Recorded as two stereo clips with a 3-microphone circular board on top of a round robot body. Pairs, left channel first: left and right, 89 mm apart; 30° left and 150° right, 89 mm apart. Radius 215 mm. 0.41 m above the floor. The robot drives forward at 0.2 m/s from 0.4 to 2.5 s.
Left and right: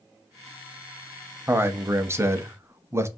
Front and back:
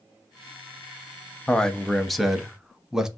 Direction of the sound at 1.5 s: 45° right.